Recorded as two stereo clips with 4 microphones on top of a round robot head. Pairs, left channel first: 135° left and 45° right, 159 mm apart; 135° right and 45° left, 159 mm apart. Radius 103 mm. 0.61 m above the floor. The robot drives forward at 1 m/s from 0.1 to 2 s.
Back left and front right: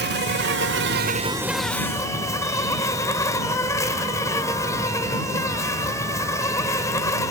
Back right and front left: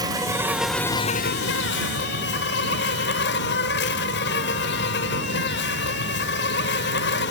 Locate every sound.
0.0 s an insect: 25° right, 1.1 m; by 7.3 s 150° right, 1.0 m